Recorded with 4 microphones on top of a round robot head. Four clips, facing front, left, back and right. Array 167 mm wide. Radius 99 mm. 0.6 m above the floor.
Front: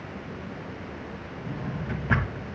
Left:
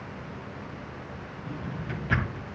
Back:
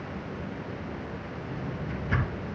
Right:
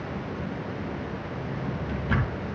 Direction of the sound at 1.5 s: 25° right.